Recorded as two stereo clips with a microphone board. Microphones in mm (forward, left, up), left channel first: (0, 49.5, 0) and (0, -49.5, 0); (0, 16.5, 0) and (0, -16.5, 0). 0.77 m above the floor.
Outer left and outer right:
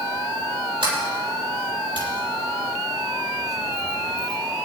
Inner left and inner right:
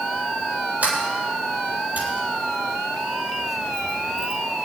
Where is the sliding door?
65° right (ahead or behind), 7.5 m.